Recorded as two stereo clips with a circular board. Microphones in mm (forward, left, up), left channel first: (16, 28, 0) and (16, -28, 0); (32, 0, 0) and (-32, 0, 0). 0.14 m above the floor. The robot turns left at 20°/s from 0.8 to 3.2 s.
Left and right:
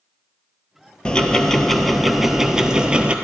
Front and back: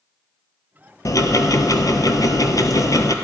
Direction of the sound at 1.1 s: 20° left.